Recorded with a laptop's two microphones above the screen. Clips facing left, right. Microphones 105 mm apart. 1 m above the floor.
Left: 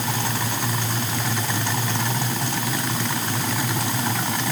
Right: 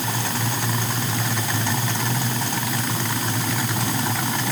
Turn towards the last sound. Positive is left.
No sound to turn to.